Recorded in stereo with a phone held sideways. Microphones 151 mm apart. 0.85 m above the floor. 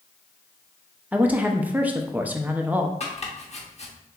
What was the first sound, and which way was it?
A woman speaking, 10° right (ahead or behind).